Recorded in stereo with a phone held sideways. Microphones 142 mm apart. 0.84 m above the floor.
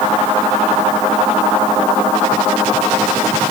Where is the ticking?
I don't hear ticking.